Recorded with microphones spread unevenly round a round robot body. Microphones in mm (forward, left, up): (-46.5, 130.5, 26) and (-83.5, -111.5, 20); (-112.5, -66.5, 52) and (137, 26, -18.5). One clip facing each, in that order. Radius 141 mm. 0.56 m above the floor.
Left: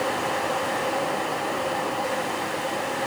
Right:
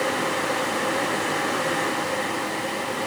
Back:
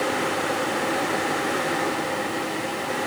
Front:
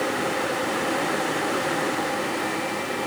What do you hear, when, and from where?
Only background noise.